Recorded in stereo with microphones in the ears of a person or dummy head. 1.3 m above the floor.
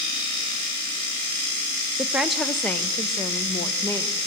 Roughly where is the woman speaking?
Centre.